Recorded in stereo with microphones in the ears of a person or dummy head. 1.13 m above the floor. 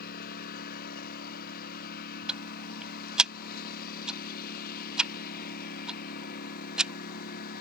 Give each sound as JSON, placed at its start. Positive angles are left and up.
{"t": 0.0, "sound": "a lawn mower", "side_deg": 50}
{"t": 2.3, "sound": "ticking", "side_deg": 0}